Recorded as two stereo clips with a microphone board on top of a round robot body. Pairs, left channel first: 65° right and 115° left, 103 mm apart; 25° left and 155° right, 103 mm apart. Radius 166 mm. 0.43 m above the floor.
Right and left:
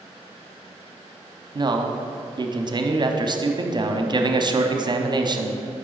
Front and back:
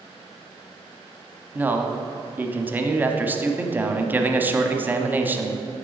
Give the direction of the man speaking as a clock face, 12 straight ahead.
7 o'clock.